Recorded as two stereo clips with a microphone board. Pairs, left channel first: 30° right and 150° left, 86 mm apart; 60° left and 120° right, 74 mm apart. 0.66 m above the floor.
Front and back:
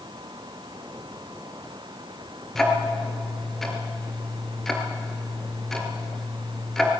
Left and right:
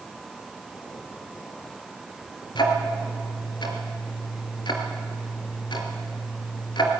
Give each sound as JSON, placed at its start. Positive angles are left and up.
{"t": 2.5, "sound": "ticking", "azimuth_deg": 55, "distance_m": 3.0}